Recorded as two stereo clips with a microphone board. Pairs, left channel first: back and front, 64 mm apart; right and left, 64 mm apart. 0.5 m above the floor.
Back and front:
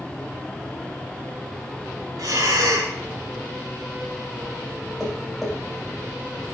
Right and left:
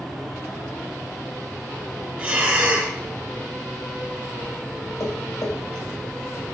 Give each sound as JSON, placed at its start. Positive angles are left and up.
{"t": 2.2, "sound": "breathing", "azimuth_deg": 20, "distance_m": 1.3}
{"t": 5.0, "sound": "tapping", "azimuth_deg": -90, "distance_m": 2.0}